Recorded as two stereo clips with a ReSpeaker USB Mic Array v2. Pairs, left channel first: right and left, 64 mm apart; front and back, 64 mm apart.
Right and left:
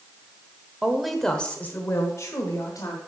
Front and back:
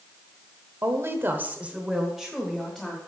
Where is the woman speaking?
160° left, 1.1 m; by 3.0 s 75° right, 1.8 m.